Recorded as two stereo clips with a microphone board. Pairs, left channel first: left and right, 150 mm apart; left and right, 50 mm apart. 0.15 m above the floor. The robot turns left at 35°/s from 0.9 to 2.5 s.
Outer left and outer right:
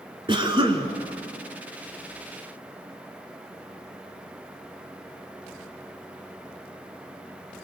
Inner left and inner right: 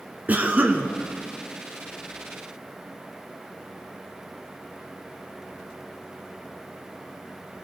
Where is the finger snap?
No finger snap in this recording.